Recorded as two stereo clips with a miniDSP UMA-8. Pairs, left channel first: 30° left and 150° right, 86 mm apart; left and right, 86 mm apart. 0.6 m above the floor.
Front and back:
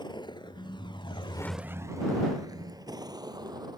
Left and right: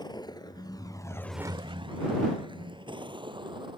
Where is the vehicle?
55° left; by 3.8 s 115° right.